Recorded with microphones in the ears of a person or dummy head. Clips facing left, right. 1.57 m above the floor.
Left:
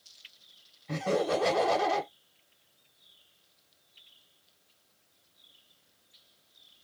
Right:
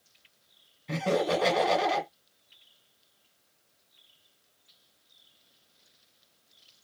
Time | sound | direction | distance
0.9 | laughter | 35° right (ahead or behind) | 1.3 m